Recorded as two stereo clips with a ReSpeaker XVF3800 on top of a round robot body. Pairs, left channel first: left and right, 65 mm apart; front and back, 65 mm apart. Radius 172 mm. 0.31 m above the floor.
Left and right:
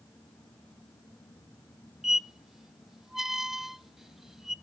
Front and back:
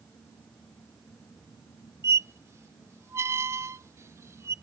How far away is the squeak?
About 0.6 m.